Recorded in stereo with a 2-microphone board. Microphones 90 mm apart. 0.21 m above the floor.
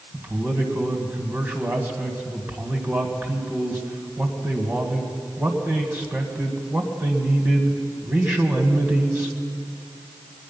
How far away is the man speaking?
About 1.7 m.